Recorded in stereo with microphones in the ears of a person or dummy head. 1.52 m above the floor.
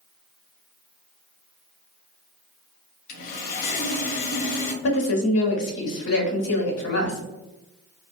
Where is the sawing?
50° left (ahead or behind), 0.7 m.